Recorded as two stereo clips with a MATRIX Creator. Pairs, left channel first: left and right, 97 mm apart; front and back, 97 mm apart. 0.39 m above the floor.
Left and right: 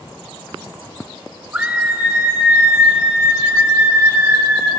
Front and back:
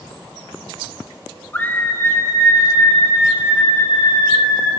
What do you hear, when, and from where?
1.5 s a scream: 40° right, 1.4 m; by 4.7 s 25° right, 3.5 m